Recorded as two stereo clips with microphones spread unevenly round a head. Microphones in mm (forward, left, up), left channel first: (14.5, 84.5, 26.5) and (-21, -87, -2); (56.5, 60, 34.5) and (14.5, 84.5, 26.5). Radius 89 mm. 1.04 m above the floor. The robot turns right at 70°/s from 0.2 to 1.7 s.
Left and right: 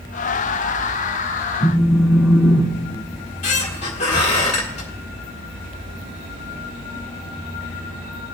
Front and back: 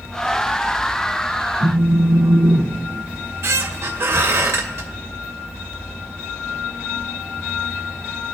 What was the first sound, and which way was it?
A phone buzzing, 165° left.